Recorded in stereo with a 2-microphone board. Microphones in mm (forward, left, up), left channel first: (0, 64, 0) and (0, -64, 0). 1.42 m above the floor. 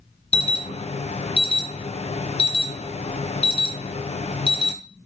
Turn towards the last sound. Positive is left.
turn(degrees=55)  # may be behind; listen again after turning